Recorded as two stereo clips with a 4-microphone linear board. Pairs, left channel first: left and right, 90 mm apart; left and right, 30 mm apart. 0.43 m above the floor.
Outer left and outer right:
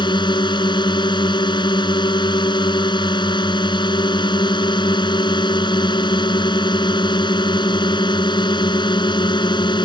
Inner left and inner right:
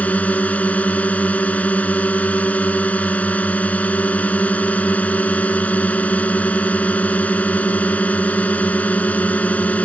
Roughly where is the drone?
Left.